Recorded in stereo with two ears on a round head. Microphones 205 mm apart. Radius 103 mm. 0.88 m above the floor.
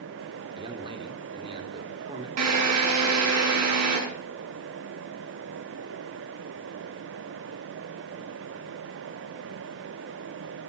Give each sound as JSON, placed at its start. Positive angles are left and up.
{"t": 0.6, "sound": "a man speaking", "side_deg": -25, "distance_m": 2.5}
{"t": 2.4, "sound": "a drill", "side_deg": -85, "distance_m": 6.5}